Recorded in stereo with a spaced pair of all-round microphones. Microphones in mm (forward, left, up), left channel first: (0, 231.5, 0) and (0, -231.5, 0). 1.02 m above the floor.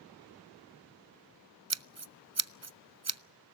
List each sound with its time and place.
1.7 s scissors: 35° right (ahead or behind), 0.5 m